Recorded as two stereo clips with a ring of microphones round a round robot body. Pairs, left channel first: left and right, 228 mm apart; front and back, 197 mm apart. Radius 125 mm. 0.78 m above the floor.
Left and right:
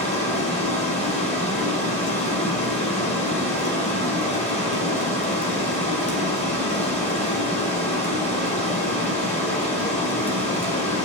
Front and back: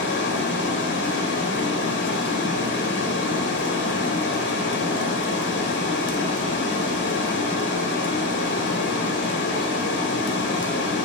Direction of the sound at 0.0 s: 30° left.